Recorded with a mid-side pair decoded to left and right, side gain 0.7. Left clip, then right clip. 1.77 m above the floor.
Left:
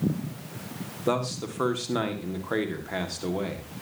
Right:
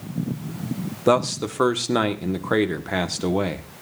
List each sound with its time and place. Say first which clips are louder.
1.1 s a man speaking: right 8 dB; 30° right, 1.9 m